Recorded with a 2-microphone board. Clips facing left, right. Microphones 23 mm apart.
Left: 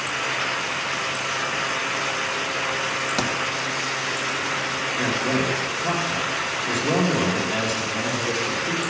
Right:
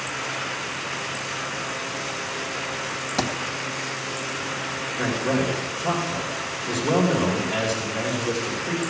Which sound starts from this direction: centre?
A man speaking, at 5.0 s.